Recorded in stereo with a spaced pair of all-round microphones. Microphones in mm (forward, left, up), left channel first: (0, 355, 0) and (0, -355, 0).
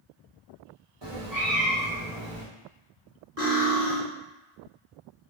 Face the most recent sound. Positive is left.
turn(degrees=-50)  # may be behind; listen again after turning